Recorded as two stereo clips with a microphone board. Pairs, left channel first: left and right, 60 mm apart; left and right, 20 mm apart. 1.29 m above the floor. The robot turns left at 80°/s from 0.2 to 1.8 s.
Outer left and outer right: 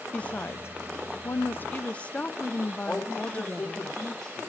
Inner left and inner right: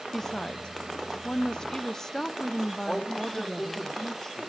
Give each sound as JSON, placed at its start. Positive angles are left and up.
{"t": 0.1, "sound": "a woman speaking", "azimuth_deg": 155, "distance_m": 0.6}
{"t": 2.9, "sound": "a man speaking", "side_deg": 15, "distance_m": 2.5}